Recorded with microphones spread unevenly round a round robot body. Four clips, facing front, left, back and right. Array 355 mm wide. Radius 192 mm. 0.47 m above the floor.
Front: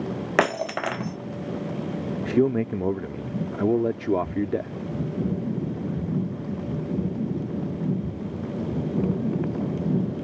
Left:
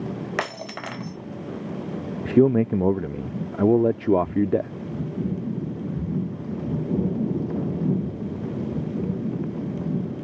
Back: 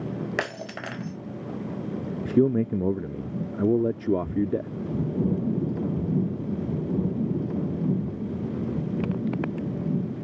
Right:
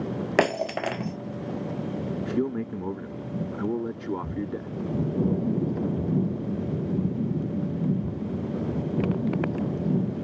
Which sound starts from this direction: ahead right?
Breaking glass, at 0.4 s.